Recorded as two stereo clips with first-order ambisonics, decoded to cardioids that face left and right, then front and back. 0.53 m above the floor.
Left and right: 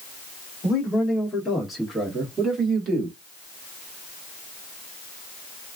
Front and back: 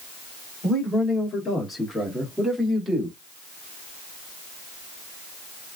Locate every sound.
0.6 s a man speaking: 40° left, 1.6 m; by 3.2 s 110° right, 1.5 m